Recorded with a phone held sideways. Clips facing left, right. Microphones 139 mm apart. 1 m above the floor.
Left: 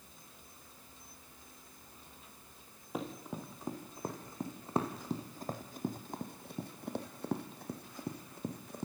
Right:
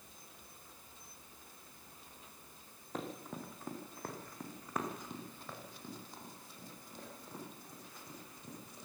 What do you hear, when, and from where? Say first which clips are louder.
2.9 s running footsteps: left 2 dB; 10° left (ahead or behind), 4.5 m; by 8.8 s 60° left (ahead or behind), 3.5 m